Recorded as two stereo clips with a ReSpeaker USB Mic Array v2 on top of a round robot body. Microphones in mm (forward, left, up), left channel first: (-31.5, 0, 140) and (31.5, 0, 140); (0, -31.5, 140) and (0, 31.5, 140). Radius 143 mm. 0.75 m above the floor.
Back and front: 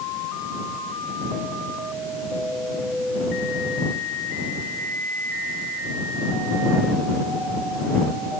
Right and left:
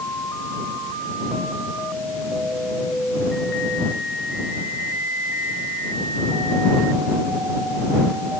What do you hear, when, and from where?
Only background noise.